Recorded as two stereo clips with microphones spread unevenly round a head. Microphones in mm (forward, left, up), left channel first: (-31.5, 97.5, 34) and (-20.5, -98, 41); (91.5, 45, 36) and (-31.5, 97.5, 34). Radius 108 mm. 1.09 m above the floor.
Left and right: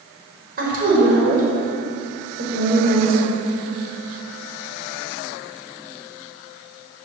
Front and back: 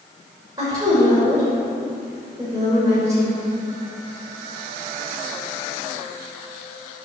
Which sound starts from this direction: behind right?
A woman speaking, at 0.6 s.